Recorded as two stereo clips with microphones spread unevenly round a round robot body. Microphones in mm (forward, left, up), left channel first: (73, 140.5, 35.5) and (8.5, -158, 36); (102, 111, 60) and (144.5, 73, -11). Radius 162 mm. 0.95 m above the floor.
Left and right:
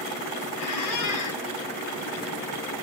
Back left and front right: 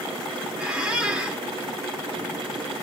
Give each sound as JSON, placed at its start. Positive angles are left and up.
{"t": 0.6, "sound": "a squeak", "azimuth_deg": 60, "distance_m": 1.8}